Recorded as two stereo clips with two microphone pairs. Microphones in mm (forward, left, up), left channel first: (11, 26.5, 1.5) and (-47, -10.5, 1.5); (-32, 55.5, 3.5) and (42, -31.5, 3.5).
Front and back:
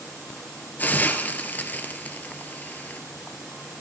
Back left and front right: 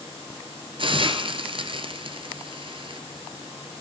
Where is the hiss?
25° right, 1.0 m.